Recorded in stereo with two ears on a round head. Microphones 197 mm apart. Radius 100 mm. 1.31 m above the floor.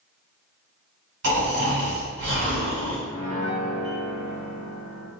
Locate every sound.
1.2 s snoring: 55° right (ahead or behind), 1.9 m
3.1 s a piano: 15° left (ahead or behind), 1.2 m